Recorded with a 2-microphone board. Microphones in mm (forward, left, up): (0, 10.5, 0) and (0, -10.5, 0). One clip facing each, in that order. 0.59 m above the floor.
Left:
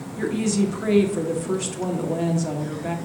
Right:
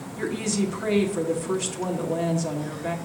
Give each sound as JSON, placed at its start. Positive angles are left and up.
{"t": 0.2, "sound": "a woman speaking", "side_deg": 5, "distance_m": 1.3}